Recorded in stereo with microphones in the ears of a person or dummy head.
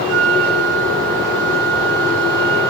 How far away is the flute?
About 3 m.